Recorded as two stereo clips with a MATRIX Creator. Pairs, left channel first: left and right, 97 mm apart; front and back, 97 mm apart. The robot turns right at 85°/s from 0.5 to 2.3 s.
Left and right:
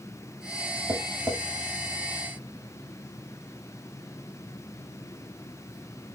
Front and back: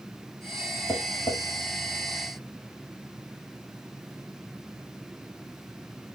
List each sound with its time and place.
0.9 s tapping: 50° right, 0.8 m; by 1.4 s 5° right, 0.8 m